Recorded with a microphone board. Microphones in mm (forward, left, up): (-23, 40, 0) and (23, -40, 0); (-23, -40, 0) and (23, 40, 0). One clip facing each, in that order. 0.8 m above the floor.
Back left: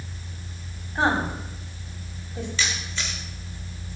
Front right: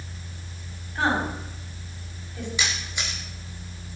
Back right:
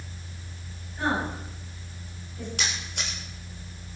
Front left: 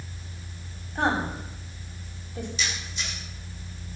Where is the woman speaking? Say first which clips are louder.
Back left 1 dB, front left 2 dB; 60° left, 5 m.